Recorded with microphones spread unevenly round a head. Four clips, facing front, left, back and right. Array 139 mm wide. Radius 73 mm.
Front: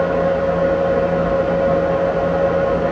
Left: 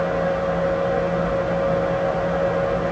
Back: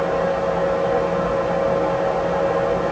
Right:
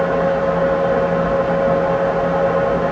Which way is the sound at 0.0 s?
95° right.